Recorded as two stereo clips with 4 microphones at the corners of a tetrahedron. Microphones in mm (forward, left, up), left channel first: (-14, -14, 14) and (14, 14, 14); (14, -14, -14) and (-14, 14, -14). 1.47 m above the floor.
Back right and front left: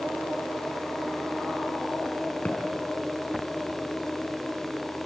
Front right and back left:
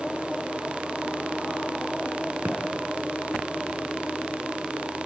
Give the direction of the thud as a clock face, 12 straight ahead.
6 o'clock.